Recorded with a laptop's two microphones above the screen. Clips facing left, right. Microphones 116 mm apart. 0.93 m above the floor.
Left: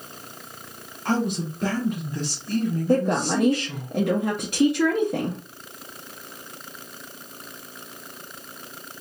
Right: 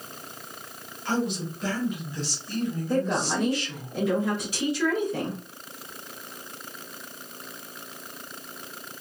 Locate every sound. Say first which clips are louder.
1.1 s a man speaking: left 3 dB; 50° left (ahead or behind), 1.1 m
2.9 s a woman speaking: left 5 dB; 60° left (ahead or behind), 0.9 m